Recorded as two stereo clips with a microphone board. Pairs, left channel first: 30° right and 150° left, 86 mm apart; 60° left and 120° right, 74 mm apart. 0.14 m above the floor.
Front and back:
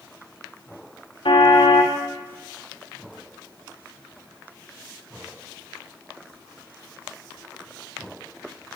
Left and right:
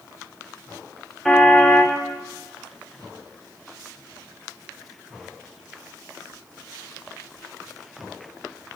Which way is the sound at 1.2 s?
25° right.